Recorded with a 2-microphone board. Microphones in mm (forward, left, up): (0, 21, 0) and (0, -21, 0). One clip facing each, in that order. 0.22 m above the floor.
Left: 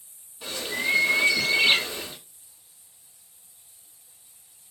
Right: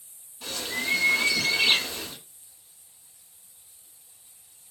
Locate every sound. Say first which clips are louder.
0.4 s a bird: left 3 dB; 15° left (ahead or behind), 0.9 m